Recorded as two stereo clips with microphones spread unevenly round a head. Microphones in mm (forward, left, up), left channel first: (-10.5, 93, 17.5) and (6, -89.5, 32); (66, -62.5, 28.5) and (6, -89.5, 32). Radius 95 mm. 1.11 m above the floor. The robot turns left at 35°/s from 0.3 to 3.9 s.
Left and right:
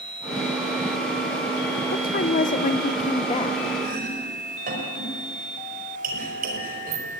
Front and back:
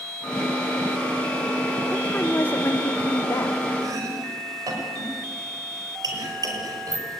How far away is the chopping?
About 5.5 m.